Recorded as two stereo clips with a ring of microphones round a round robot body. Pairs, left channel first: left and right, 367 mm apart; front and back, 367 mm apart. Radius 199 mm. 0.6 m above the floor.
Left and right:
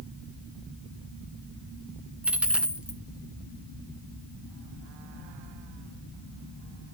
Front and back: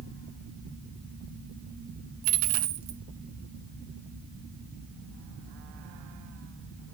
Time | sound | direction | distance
2.2 | a dropped coin | 175° right | 1.5 m